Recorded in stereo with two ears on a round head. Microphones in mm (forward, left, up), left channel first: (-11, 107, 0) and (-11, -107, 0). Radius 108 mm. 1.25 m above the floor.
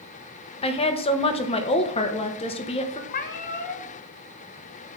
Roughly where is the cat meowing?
Left.